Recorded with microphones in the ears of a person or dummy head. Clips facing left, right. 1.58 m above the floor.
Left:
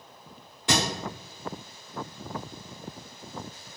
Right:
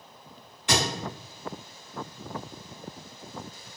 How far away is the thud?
About 1.5 m.